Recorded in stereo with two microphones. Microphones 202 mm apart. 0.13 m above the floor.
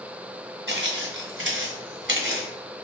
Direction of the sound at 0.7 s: 70° right (ahead or behind).